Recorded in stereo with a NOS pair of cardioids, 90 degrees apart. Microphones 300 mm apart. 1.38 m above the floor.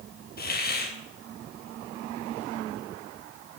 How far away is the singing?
No singing in this recording.